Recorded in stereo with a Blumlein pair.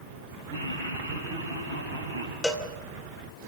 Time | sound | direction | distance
0.5 | laughter | 65° right | 4 m
2.4 | a cowbell | 5° left | 2 m